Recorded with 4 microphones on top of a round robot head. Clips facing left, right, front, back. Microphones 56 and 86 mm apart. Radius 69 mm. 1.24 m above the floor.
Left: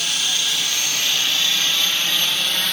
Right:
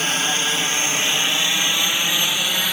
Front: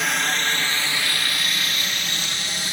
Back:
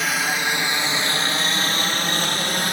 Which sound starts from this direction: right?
A helicopter, at 0.0 s.